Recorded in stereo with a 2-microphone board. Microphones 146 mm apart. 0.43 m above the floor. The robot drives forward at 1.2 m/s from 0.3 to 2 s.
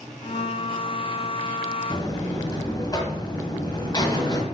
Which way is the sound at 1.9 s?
35° left (ahead or behind).